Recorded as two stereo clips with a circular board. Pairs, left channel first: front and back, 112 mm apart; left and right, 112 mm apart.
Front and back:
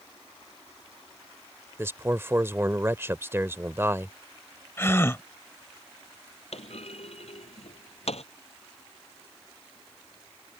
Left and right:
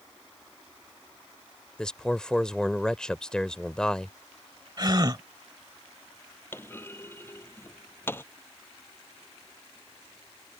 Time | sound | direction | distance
1.8 | a man speaking | 160° left | ?
4.8 | a gasp | 60° right | ?
6.5 | a clunk | 20° left | ?